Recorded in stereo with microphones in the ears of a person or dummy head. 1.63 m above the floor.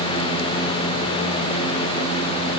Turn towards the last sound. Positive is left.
No sound to turn to.